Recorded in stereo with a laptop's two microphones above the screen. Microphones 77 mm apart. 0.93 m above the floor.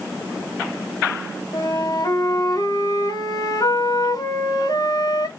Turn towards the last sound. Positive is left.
turn(degrees=60)  # may be behind; listen again after turning